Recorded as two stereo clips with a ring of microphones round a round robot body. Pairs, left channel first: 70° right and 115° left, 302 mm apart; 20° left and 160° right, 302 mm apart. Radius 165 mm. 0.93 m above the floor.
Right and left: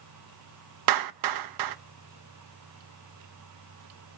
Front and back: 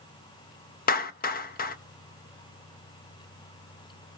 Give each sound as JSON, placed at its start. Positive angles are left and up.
{"t": 0.9, "sound": "a clap", "azimuth_deg": 85, "distance_m": 0.7}